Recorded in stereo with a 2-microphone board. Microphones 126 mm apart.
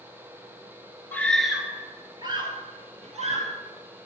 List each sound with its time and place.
1.1 s a scream: 15° left (ahead or behind), 1.4 m; by 3.5 s 55° right (ahead or behind), 3 m